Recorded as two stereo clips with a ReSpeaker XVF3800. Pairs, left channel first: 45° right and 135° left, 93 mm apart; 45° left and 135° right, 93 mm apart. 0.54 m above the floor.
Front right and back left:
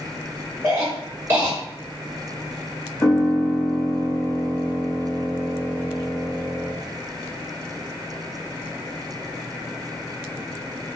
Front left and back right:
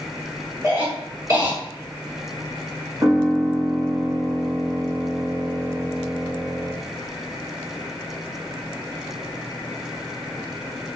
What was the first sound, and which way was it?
A cough, 170° right.